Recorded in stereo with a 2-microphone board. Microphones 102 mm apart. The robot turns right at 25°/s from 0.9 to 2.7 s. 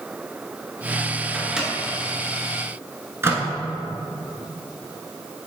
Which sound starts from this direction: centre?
A microwave, at 1.3 s.